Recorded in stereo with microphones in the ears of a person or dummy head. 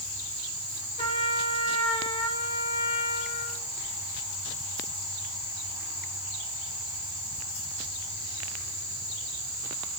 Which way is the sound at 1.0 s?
40° left (ahead or behind).